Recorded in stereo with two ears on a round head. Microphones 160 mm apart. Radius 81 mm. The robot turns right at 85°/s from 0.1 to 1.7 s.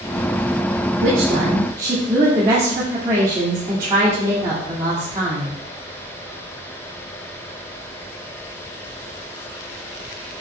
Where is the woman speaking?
80° right, 1.7 m; by 5.6 s 20° right, 1.7 m.